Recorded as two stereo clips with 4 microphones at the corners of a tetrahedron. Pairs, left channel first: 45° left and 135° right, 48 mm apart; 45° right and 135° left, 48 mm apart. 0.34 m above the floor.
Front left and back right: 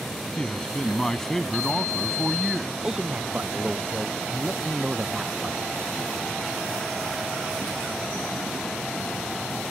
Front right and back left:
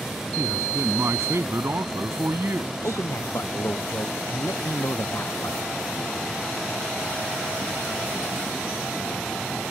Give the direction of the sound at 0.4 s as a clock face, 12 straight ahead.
8 o'clock.